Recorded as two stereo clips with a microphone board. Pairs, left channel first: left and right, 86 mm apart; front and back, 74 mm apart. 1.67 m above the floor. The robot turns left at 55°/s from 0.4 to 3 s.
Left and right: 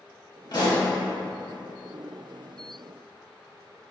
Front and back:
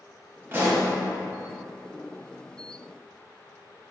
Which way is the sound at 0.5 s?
125° left.